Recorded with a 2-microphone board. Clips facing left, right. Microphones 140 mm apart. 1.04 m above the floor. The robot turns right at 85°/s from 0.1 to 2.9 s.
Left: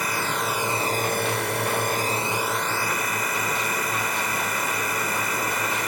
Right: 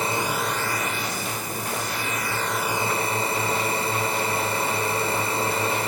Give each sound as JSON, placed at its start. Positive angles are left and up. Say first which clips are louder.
{"t": 0.0, "sound": "a drone", "louder": "right 2 dB", "azimuth_deg": -30}